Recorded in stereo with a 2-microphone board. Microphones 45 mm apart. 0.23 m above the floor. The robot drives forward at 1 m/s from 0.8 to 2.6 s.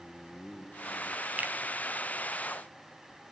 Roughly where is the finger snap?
Right.